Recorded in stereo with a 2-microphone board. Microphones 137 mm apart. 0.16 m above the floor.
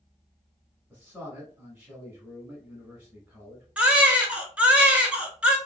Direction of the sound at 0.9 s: 10° right (ahead or behind).